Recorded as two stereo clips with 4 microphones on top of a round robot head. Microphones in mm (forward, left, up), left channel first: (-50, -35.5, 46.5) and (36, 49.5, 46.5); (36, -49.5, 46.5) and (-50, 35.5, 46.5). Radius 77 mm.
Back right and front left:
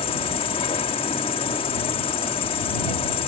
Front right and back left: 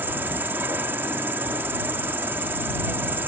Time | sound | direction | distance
0.0 | an insect | 160° right | ?